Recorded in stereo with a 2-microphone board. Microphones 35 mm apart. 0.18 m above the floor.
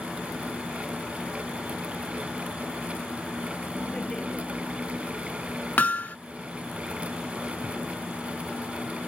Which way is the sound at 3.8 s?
15° left (ahead or behind).